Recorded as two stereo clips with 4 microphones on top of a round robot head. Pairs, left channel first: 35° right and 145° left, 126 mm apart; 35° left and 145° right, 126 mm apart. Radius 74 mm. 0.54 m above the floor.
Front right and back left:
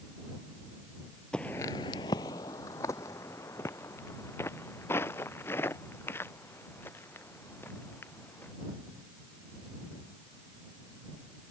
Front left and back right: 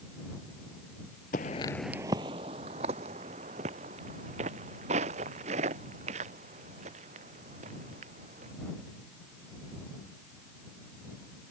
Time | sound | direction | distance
1.3 | footsteps | 50° left | ?